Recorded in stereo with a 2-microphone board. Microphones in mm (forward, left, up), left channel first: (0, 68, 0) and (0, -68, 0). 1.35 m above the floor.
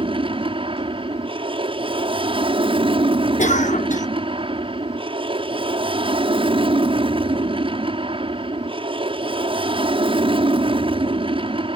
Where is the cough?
65° left (ahead or behind).